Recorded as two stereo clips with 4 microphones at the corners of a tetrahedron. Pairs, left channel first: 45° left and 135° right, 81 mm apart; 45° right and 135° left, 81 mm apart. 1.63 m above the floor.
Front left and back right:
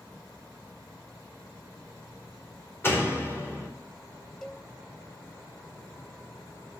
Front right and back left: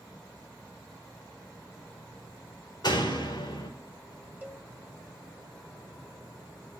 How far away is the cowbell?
About 1.5 m.